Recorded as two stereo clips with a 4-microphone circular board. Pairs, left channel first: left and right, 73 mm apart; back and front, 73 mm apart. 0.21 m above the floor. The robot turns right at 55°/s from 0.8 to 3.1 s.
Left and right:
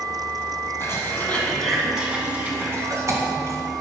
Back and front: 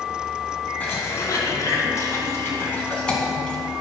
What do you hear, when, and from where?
0.8 s a cough: 125° left, 2 m; by 3.6 s 110° right, 2 m